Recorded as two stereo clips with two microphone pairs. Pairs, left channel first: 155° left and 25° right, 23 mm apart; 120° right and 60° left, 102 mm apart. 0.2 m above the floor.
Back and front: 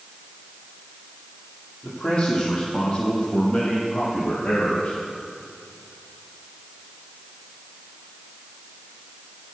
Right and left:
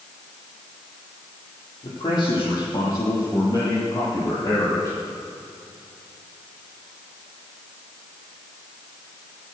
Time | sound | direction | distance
1.8 | a man speaking | 165° right | 7 m